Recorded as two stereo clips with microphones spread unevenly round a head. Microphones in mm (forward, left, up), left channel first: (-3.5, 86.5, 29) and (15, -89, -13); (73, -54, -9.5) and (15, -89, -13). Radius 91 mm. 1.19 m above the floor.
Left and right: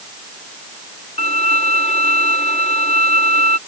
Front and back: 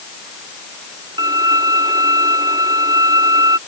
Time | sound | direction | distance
1.2 | a violin | 155° left | ?